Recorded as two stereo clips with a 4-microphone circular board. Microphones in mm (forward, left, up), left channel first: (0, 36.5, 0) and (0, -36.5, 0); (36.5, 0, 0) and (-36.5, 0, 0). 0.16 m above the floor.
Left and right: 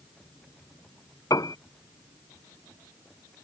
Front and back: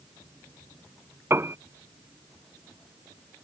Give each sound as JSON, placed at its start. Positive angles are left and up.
{"t": 1.3, "sound": "a piano", "azimuth_deg": 125}